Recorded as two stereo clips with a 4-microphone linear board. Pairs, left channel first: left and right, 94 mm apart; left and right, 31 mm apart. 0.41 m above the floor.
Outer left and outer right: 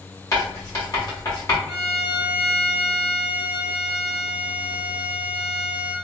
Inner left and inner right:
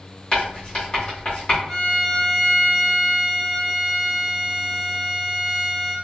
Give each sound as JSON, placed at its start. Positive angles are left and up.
{"t": 0.3, "sound": "writing", "side_deg": 35, "distance_m": 1.5}
{"t": 1.7, "sound": "a violin", "side_deg": 10, "distance_m": 1.5}